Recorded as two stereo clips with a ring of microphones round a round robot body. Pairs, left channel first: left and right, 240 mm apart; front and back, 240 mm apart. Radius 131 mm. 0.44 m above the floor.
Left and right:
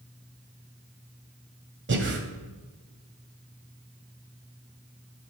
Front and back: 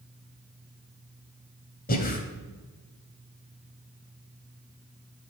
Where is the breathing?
50° right, 1.8 m.